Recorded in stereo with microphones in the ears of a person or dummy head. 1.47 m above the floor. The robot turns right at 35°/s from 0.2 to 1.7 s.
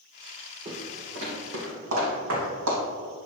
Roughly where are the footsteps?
Right.